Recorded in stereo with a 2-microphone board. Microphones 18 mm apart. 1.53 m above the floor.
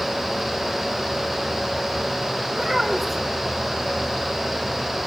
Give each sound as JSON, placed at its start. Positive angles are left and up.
{"t": 2.5, "sound": "a child speaking", "side_deg": -5, "distance_m": 3.5}